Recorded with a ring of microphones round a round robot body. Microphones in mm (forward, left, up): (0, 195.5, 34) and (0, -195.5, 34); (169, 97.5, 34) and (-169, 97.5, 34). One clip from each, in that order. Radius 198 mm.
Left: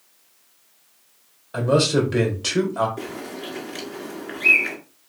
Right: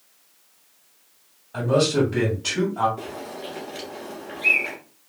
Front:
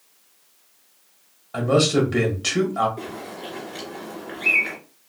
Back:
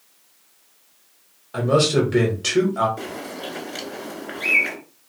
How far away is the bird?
About 1.9 m.